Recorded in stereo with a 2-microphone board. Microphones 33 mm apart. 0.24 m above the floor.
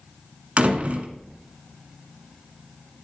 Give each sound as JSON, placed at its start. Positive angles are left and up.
{"t": 0.6, "sound": "a door slam", "side_deg": -45, "distance_m": 1.9}